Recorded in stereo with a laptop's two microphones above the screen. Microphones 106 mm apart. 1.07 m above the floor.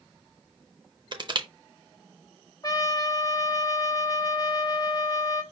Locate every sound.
1.1 s crushing: 45° right (ahead or behind), 0.5 m
2.6 s a trumpet: 35° left (ahead or behind), 0.9 m